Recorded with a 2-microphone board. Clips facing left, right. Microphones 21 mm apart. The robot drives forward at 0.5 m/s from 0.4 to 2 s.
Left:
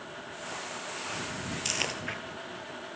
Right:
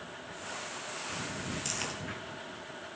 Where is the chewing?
35° left (ahead or behind), 2.5 m.